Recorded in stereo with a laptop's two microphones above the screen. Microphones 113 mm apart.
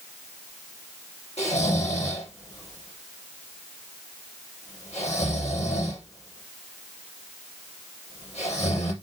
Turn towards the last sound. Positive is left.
turn(degrees=75)  # may be behind; listen again after turning